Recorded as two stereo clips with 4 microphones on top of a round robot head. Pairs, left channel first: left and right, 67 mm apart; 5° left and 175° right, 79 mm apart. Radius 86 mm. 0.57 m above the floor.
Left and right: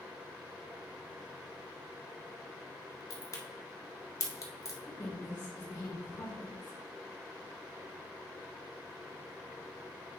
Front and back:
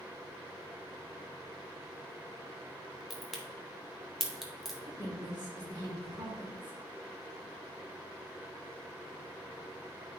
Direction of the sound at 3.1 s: 100° left.